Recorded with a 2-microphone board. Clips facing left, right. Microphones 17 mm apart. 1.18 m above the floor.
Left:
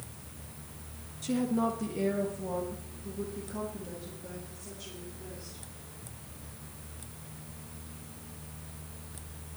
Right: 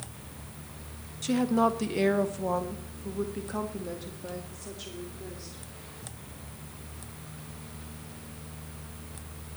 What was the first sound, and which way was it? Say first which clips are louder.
A woman speaking: right 5 dB; 25° right (ahead or behind).